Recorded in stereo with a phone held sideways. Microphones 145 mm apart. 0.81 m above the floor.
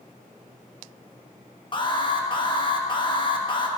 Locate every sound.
1.7 s an alarm: 35° left (ahead or behind), 0.8 m